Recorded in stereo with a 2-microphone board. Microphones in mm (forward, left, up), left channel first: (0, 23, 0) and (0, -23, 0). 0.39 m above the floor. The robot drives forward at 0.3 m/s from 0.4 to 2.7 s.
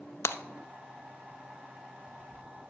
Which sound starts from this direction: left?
Breaking glass, at 0.2 s.